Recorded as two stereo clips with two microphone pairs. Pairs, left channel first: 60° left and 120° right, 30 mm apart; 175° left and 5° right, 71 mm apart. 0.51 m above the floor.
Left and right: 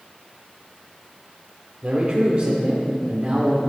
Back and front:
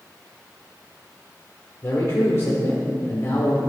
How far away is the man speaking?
About 1.2 m.